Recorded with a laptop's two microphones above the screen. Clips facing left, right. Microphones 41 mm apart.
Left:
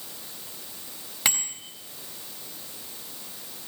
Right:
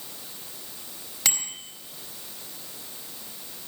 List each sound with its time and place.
1.2 s a bicycle bell: 20° left (ahead or behind), 4 m